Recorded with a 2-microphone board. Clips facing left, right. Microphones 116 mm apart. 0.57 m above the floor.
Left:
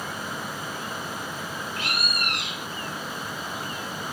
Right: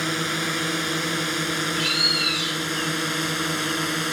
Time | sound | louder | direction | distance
0.0 | a drone | right 6 dB | 80° right | ?
1.8 | a bird | right 4 dB | 55° left (ahead or behind) | ?